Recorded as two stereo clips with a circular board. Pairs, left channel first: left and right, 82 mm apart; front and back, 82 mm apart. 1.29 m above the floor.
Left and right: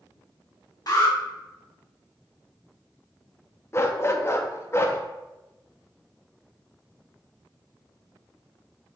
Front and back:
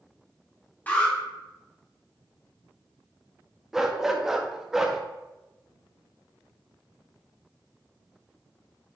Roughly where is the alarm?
Ahead left.